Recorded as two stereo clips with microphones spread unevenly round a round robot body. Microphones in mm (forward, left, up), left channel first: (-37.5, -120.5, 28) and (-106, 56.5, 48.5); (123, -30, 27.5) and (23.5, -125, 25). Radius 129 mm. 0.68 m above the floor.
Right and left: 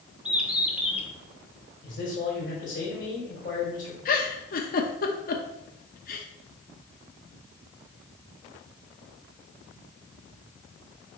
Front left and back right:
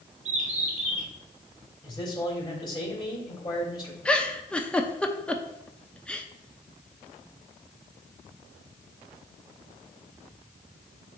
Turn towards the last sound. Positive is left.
turn(degrees=-40)